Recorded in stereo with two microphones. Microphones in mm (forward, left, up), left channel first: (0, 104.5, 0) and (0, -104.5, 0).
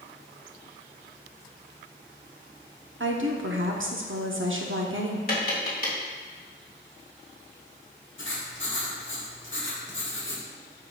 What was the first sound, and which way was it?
A woman speaking, 70° right (ahead or behind).